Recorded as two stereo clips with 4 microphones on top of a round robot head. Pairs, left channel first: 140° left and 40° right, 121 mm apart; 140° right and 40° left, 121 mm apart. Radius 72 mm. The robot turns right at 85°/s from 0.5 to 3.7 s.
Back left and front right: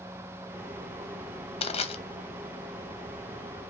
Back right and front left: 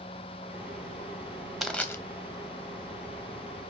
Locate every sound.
1.6 s crushing: 130° left, 0.9 m; by 2.0 s 160° left, 0.9 m